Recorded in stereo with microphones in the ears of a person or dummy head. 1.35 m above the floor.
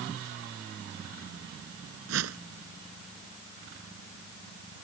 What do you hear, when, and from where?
2.1 s a whoosh: 70° right (ahead or behind)